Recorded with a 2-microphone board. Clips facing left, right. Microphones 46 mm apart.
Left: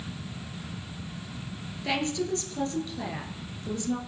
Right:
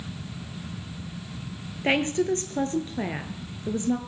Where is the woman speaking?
40° right (ahead or behind), 1.6 m; by 4.0 s 30° right (ahead or behind), 1.6 m.